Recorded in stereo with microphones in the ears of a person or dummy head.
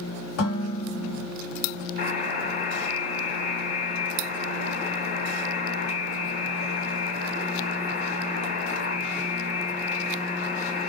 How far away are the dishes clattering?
About 1.5 m.